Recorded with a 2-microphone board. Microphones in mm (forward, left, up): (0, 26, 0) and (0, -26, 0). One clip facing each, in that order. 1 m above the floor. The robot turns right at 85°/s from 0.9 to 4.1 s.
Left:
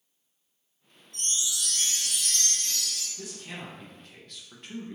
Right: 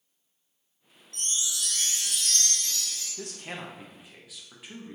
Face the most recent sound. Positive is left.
turn(degrees=-5)